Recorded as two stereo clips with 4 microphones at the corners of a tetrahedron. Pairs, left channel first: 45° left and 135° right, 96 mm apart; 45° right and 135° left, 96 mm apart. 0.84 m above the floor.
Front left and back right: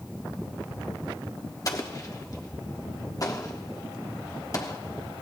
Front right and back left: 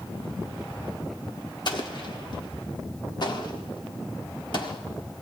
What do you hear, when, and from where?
1.6 s an explosion: 10° right, 1.3 m